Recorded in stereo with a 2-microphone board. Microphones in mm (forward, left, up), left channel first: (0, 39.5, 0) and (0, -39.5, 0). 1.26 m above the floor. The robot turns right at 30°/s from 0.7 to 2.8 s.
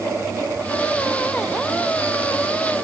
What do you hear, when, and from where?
Only background noise.